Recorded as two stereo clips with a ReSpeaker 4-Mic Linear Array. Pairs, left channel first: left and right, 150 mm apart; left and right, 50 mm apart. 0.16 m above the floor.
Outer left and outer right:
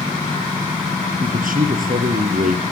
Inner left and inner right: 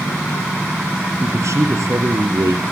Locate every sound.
1.2 s a man speaking: 70° right (ahead or behind), 3 m